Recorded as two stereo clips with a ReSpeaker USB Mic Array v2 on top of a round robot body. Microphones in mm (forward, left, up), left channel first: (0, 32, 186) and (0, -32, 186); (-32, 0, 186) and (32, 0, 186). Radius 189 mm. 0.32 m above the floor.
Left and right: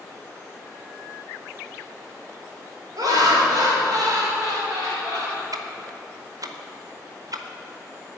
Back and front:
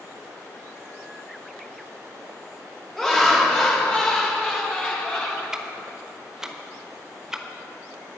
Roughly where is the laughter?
Right.